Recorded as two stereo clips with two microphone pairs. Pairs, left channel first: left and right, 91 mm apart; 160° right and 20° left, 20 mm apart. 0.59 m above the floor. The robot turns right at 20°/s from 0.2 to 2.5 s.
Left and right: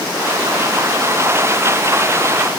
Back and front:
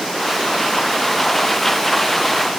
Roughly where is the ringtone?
No ringtone in this recording.